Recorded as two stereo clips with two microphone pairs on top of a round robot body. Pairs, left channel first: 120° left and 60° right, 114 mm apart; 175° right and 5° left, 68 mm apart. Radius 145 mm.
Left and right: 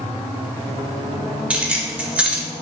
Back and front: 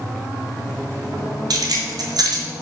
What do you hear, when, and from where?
1.5 s keys jangling: 20° left, 0.9 m